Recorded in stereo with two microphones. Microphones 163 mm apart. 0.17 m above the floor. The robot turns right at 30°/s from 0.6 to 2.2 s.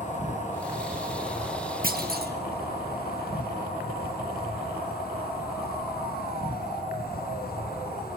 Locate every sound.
0.0 s an insect: 55° left, 4 m; by 8.2 s 100° left, 4 m
1.8 s a clunk: 60° right (ahead or behind), 1.7 m; by 2.3 s 65° right (ahead or behind), 1.7 m